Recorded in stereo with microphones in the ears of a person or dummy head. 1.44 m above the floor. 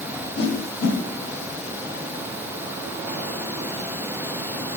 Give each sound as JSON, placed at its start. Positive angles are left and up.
{"t": 0.4, "sound": "a whoosh", "side_deg": 60, "distance_m": 2.5}